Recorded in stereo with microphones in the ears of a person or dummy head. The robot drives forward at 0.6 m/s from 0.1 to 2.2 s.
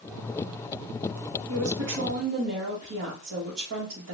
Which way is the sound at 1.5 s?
80° right.